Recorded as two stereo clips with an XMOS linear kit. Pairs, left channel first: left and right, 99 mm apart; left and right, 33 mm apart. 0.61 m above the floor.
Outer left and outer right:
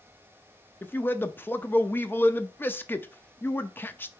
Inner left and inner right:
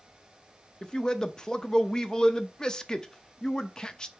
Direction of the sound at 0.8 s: 20° left (ahead or behind).